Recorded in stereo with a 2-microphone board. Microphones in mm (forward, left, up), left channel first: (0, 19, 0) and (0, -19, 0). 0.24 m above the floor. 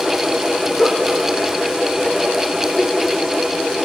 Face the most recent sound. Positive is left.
turn(degrees=35)  # may be behind; listen again after turning